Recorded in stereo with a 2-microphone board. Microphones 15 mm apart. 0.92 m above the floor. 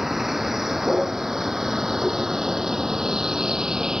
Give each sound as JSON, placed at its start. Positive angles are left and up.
{"t": 0.0, "sound": "a vehicle", "side_deg": -20}